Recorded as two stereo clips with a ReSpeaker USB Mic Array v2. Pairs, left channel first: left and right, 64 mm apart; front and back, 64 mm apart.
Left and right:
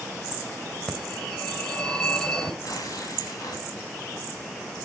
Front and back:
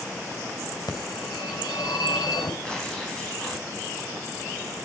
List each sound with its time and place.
0.9 s a phone ringing: 10° left, 3 m
2.6 s tearing paper: 80° left, 6.5 m